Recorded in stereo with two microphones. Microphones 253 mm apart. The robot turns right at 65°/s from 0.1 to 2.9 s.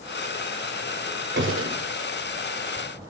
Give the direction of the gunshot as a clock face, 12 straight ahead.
4 o'clock.